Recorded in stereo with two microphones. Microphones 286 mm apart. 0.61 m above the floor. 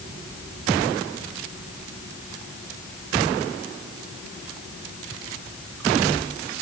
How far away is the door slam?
I don't hear a door slam.